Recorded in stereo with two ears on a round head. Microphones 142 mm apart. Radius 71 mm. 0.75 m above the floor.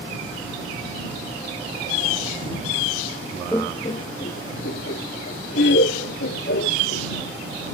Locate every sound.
3.5 s laughter: 10° left (ahead or behind); by 7.1 s 80° left